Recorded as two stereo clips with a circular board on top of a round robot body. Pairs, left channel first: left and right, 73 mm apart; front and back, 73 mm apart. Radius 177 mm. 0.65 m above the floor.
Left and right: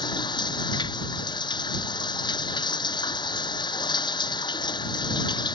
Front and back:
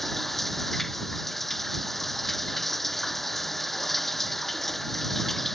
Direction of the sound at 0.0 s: 90° left.